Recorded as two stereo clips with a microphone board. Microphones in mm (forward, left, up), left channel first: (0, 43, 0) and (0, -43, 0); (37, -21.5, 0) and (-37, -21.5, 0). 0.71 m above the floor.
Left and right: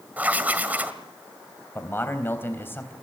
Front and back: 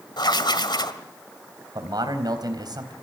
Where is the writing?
20° right, 1.9 m.